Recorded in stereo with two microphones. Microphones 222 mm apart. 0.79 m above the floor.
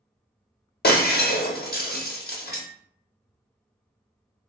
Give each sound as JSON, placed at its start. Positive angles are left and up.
{"t": 0.8, "sound": "breaking glass", "side_deg": 45, "distance_m": 0.7}